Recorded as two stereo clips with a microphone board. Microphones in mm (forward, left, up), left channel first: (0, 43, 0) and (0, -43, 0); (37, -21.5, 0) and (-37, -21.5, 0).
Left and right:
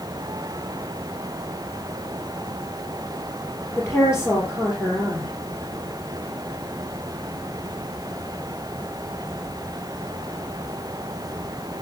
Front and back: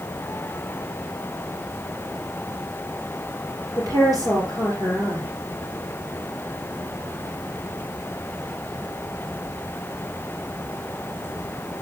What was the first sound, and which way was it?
A woman speaking, 35° left.